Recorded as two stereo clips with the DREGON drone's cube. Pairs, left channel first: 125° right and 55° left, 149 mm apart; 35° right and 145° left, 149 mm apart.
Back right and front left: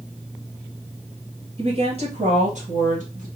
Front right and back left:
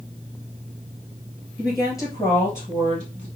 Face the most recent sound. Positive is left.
turn(degrees=65)